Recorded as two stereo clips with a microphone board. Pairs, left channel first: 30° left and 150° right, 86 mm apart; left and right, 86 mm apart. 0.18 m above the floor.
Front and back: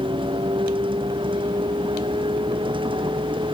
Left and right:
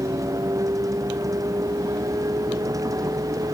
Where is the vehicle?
140° right.